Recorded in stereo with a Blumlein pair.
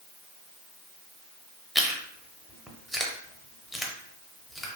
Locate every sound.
1.8 s chewing: 5° right, 0.6 m